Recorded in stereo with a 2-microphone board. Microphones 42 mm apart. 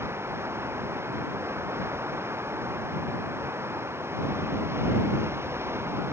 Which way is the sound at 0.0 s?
80° right.